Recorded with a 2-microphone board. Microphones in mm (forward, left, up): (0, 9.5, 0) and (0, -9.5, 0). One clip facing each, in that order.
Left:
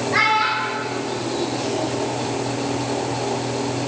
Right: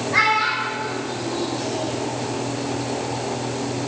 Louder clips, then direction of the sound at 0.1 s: Even; 20° left (ahead or behind).